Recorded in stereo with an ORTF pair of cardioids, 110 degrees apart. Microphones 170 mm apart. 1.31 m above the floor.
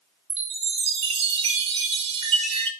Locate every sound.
0.3 s a chime: 35° right, 0.6 m